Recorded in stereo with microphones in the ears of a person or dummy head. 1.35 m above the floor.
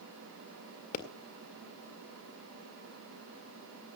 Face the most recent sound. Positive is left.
turn(degrees=50)  # may be behind; listen again after turning